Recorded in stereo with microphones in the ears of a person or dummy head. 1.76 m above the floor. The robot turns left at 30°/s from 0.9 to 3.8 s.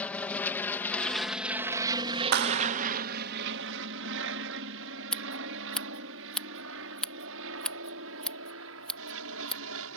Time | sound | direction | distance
0.0 | an aircraft | 10° left (ahead or behind) | ?
2.3 | a clap | 60° right (ahead or behind) | ?
5.1 | scissors | centre (ahead or behind) | ?